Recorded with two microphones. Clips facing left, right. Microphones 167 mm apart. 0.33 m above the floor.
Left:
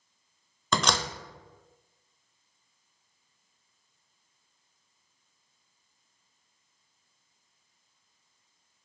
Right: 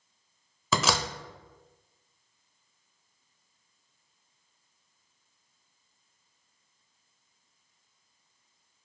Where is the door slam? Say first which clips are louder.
Even; 5° right (ahead or behind), 0.7 m.